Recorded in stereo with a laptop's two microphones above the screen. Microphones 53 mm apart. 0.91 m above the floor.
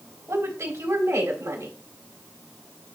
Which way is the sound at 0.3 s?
80° right.